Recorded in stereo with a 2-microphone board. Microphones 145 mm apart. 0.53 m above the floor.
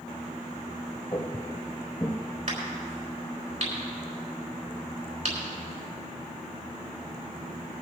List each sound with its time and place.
1.1 s footsteps: 40° left (ahead or behind), 3 m; by 2.2 s 35° left (ahead or behind), 2 m
2.5 s a crack: 55° right (ahead or behind), 5.5 m